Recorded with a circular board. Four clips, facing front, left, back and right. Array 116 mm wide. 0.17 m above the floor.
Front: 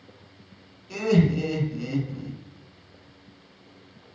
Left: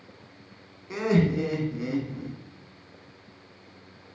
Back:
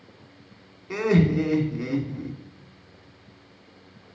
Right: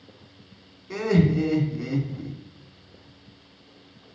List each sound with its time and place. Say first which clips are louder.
0.9 s laughter: right 2 dB, back 1 dB; 175° left, 1.8 m